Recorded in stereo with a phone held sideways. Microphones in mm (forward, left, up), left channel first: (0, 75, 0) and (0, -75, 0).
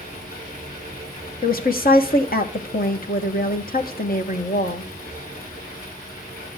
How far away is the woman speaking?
About 1.6 m.